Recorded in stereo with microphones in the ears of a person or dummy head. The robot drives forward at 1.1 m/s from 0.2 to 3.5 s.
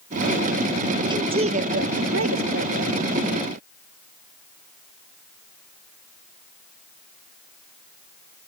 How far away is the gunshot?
I don't hear a gunshot.